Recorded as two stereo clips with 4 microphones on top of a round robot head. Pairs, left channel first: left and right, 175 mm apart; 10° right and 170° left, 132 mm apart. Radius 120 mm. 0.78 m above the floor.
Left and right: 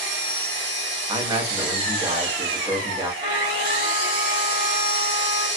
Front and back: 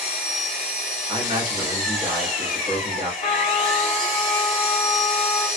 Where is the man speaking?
150° right, 1.1 m.